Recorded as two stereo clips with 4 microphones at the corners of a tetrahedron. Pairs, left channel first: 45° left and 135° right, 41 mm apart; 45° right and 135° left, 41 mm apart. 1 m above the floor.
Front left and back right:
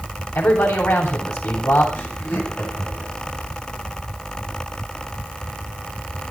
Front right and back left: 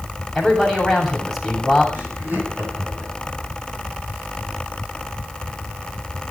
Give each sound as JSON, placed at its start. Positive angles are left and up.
{"t": 0.3, "sound": "a man speaking", "azimuth_deg": 45, "distance_m": 7.0}
{"t": 1.9, "sound": "laughter", "azimuth_deg": 85, "distance_m": 8.5}